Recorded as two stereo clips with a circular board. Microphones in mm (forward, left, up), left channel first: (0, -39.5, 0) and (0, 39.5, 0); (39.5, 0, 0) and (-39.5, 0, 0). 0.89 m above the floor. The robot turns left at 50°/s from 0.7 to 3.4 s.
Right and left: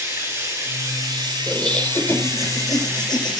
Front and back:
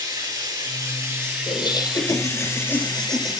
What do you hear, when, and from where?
0.0 s running water: 145° left, 8 m; by 3.4 s 10° left, 8 m
1.5 s laughter: straight ahead, 4 m; by 3.4 s 95° right, 4 m